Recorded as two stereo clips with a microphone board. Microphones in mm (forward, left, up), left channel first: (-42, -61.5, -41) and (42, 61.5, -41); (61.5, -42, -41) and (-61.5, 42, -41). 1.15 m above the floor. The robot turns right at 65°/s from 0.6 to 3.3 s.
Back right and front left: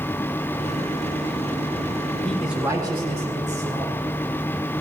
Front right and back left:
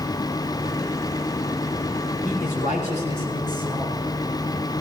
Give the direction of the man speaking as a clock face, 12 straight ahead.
1 o'clock.